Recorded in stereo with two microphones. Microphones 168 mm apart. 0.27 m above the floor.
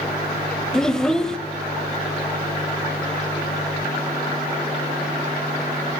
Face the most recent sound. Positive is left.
turn(degrees=5)  # may be behind; listen again after turning